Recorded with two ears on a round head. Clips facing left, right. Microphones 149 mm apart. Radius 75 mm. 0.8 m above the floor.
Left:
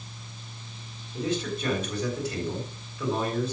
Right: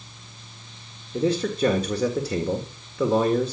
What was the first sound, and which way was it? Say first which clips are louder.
A man speaking: right 6 dB; 60° right (ahead or behind).